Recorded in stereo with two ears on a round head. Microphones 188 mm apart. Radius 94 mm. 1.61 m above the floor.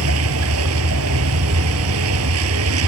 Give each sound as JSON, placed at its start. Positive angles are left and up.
{"t": 0.0, "sound": "a vehicle", "side_deg": -85}